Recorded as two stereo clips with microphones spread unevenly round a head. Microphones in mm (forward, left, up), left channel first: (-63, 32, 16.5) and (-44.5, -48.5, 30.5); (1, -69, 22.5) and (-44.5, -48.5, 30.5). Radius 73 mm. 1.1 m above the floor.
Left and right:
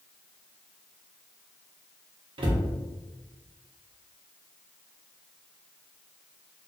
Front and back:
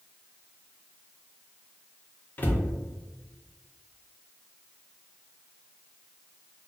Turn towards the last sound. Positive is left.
turn(degrees=-60)